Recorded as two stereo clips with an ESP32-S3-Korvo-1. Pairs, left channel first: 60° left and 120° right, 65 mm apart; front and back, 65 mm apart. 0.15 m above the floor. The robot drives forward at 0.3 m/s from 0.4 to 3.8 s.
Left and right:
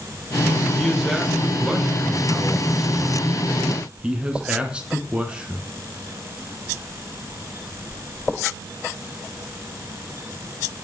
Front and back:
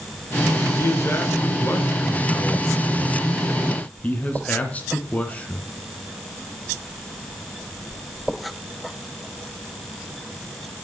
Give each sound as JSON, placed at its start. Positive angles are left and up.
{"t": 0.8, "sound": "a man speaking", "azimuth_deg": -35, "distance_m": 2.5}